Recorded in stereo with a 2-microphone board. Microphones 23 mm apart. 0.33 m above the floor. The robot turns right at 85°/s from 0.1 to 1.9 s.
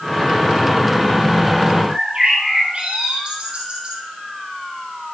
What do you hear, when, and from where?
1.9 s a bird: 40° right (ahead or behind), 4.5 m